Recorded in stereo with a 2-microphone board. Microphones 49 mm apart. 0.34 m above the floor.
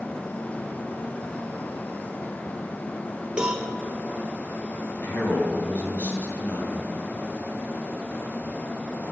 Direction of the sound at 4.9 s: 45° left (ahead or behind).